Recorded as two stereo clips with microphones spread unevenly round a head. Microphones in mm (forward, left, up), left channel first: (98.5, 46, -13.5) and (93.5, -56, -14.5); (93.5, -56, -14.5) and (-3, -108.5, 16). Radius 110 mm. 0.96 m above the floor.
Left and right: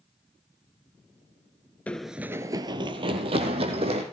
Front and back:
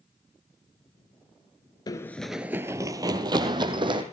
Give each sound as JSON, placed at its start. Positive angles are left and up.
{"t": 1.9, "sound": "running footsteps", "azimuth_deg": 45, "distance_m": 0.9}